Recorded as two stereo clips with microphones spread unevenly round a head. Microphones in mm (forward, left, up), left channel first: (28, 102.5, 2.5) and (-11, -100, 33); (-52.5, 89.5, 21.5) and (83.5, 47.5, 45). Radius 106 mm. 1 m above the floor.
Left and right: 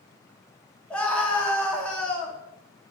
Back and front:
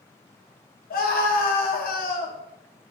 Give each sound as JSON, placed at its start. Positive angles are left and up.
{"t": 0.9, "sound": "a scream", "azimuth_deg": 165, "distance_m": 1.8}